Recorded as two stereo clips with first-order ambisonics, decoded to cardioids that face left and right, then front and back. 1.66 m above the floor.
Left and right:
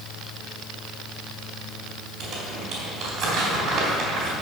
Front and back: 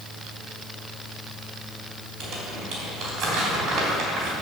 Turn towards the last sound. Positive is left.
turn(degrees=-150)